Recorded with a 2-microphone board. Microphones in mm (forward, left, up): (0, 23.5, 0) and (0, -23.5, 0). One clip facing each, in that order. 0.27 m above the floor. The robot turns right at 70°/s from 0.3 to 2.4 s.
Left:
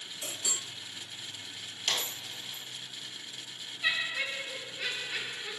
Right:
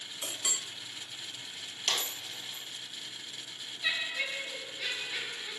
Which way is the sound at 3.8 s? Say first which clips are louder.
Left 2 dB; 50° left (ahead or behind).